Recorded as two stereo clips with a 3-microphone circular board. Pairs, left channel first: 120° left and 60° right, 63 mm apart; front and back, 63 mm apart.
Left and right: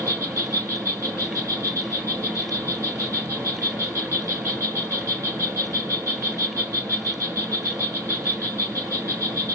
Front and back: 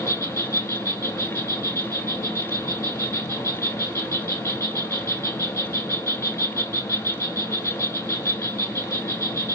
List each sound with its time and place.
0.0 s an insect: 30° right, 4 m